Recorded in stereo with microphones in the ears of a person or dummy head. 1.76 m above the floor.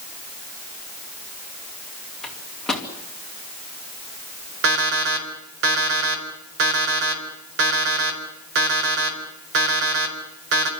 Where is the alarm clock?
70° right (ahead or behind), 4.5 m.